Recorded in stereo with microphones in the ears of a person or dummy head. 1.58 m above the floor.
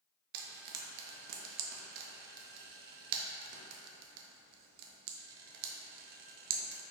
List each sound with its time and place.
0.3 s frying: 55° right (ahead or behind), 0.6 m